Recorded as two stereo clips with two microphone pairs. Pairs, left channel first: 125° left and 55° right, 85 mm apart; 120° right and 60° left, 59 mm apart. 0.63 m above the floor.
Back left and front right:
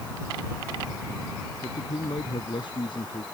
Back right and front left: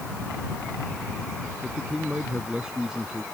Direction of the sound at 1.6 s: 140° left.